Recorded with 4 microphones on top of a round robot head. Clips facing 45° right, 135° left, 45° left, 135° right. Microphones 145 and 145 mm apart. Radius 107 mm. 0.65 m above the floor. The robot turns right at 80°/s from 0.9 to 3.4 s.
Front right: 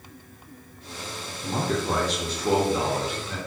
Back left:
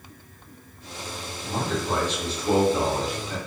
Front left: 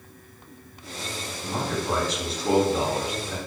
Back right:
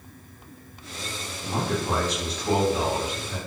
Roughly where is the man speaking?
Right.